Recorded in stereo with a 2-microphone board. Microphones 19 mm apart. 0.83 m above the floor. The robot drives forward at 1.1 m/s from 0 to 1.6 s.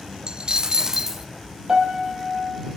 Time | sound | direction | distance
0.3 | a dropped coin | 50° right (ahead or behind) | 0.5 m
1.7 | a piano | 40° right (ahead or behind) | 5.5 m